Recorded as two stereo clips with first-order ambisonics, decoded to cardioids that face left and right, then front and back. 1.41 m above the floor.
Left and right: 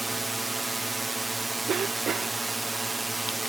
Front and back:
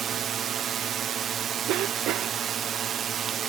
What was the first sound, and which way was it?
A drone, 160° right.